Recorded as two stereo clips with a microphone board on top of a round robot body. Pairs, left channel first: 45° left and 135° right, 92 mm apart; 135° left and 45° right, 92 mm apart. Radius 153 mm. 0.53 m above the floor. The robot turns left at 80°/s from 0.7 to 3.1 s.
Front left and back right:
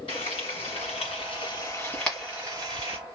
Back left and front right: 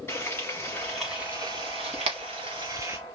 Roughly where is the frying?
Left.